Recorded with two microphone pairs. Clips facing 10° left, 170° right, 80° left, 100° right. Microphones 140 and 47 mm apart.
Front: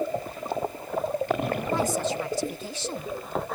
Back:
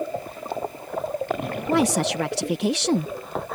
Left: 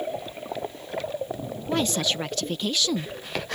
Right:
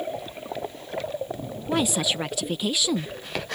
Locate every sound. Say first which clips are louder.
1.7 s a woman speaking: back 8 dB, right 1 dB; straight behind